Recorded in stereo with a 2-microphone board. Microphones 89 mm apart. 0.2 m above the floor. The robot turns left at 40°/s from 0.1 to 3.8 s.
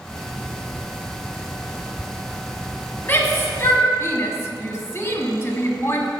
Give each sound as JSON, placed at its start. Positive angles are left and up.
{"t": 3.0, "sound": "a shout", "side_deg": 25, "distance_m": 1.2}